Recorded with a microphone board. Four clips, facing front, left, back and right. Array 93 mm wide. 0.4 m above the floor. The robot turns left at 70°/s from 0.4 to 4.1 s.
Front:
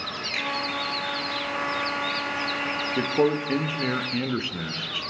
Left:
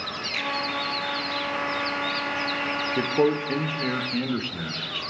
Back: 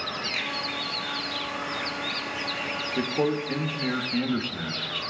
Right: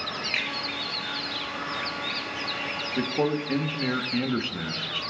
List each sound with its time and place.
0.3 s a finger snap: 70° right, 6.5 m; by 0.5 s 75° right, 6.5 m
3.0 s a man speaking: 60° left, 0.8 m; by 5.0 s 20° right, 0.8 m